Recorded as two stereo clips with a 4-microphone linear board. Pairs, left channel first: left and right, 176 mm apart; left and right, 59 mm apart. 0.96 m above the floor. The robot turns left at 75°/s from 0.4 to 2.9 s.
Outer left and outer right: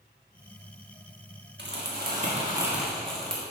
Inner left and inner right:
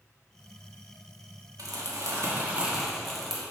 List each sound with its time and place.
1.6 s crumpling: 85° right, 1.4 m; by 3.4 s 175° left, 1.4 m